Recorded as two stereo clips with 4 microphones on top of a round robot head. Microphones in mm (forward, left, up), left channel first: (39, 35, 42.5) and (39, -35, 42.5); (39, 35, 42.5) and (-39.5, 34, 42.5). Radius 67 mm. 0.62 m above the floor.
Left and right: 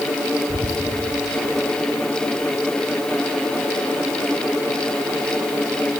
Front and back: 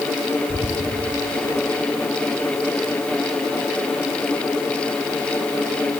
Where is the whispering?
55° right, 2.5 m.